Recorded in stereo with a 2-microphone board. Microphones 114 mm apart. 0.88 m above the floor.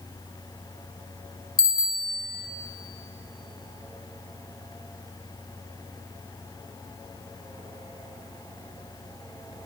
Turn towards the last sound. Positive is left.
turn(degrees=35)  # may be behind; listen again after turning